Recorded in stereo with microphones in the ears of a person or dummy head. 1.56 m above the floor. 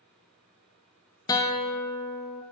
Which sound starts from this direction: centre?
A guitar, at 1.3 s.